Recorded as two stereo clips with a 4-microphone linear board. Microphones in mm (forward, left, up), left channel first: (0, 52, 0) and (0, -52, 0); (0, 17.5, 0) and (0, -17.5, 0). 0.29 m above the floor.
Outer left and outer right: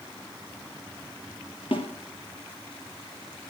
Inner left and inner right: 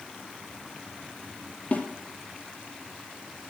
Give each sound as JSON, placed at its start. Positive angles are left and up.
{"t": 1.7, "sound": "a snare drum", "side_deg": 60, "distance_m": 3.0}